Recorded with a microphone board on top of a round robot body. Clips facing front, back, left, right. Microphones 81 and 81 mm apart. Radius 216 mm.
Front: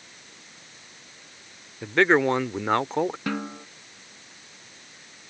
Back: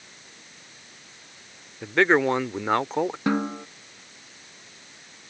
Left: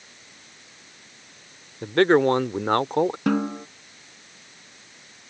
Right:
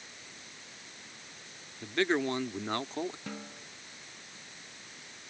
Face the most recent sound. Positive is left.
turn(degrees=115)